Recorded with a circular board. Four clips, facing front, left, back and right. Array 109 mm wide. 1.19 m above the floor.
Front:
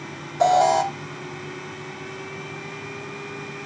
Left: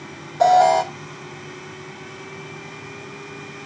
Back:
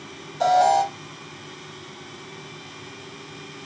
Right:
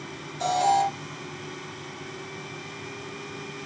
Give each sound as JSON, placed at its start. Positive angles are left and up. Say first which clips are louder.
{"t": 0.4, "sound": "an alarm", "louder": "left 8 dB, even", "azimuth_deg": 55, "distance_m": 2.5}